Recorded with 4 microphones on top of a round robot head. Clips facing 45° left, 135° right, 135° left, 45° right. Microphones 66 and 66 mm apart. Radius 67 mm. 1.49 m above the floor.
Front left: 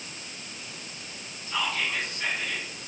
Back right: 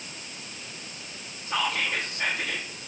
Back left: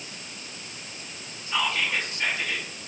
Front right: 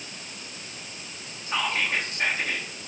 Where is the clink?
I don't hear a clink.